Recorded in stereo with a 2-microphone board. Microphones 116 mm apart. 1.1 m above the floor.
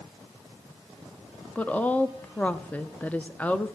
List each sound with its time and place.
1.6 s a woman speaking: 15° left (ahead or behind), 0.5 m